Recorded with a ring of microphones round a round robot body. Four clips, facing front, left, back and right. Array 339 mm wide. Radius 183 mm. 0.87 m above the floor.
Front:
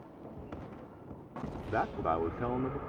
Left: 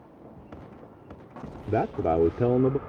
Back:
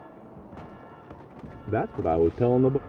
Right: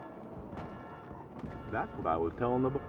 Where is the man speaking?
130° left; by 2.8 s 145° left.